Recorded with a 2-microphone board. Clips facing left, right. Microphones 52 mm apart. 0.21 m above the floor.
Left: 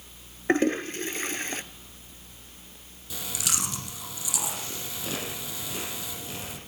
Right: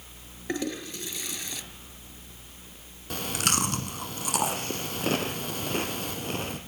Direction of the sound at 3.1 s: 55° right (ahead or behind).